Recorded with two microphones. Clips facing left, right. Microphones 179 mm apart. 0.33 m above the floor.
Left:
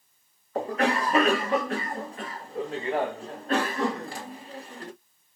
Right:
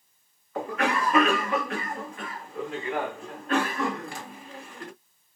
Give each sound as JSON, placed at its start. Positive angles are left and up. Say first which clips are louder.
{"t": 0.6, "sound": "a cough", "louder": "left 2 dB", "side_deg": 40, "distance_m": 1.4}